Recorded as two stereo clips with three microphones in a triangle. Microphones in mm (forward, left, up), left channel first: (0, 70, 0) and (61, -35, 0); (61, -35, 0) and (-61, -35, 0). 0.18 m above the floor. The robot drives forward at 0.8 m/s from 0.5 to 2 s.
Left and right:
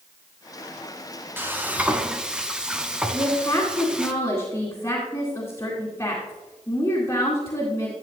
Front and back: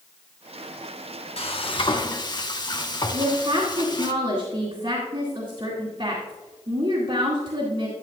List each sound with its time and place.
1.4 s frying: 10° left, 1.2 m; by 4.1 s 20° left, 0.9 m
3.1 s a woman speaking: 175° left, 2 m